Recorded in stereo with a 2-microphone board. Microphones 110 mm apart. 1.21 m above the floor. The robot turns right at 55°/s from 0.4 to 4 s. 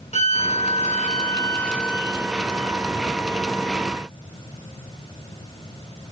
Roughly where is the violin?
Left.